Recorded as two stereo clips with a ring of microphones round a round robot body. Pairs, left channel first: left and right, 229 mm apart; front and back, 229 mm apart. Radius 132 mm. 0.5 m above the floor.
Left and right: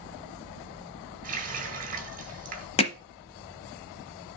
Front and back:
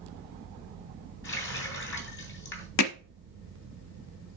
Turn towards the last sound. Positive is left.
turn(degrees=25)